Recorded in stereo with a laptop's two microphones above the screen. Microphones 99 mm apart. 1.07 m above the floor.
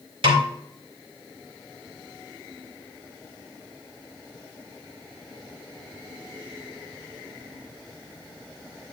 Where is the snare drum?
65° right (ahead or behind), 1.8 m.